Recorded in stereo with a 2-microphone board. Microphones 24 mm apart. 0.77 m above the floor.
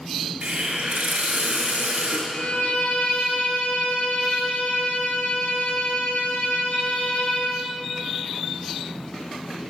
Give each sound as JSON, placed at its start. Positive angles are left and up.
{"t": 0.4, "sound": "a hiss", "side_deg": -55, "distance_m": 4.5}
{"t": 2.3, "sound": "a violin", "side_deg": 80, "distance_m": 4.5}